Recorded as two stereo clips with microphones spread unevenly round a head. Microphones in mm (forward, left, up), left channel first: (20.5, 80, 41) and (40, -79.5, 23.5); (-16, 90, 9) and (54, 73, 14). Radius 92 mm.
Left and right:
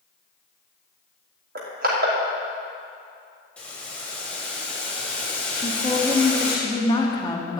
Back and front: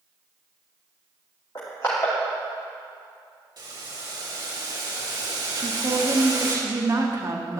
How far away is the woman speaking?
About 1.9 m.